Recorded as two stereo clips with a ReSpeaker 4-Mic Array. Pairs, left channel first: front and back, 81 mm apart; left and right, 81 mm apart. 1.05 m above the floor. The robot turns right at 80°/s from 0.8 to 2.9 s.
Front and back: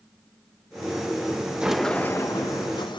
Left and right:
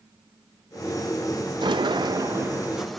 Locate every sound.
1.6 s a sliding door: 100° right, 0.6 m; by 3.0 s straight ahead, 0.6 m